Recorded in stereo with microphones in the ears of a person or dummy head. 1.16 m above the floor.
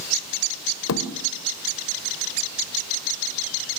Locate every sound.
0.9 s a thud: 80° left, 2.5 m